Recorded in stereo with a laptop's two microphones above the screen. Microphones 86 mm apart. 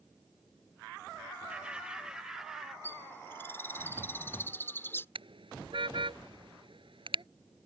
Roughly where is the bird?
Left.